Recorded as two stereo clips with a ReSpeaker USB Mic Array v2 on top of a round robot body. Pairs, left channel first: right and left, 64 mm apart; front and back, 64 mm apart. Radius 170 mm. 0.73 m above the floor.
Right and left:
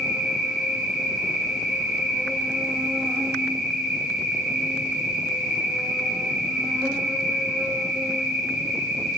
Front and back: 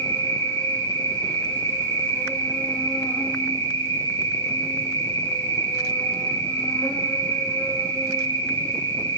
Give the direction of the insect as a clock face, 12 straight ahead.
12 o'clock.